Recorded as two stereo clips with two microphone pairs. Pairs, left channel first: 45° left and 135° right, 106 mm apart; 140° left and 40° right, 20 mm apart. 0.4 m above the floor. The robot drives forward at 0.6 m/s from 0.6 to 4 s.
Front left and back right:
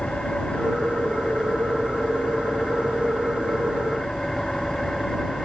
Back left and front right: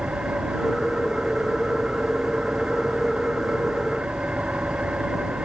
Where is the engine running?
40° right.